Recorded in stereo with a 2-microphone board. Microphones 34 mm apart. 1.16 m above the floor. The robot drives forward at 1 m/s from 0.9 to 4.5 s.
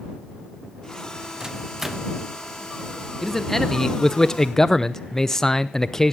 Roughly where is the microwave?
Centre.